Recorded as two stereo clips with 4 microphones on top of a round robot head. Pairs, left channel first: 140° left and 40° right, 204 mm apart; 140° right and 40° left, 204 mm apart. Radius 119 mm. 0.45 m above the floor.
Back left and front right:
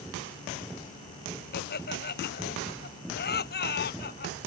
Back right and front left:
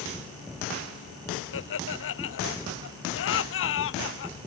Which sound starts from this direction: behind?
Laughter, at 1.5 s.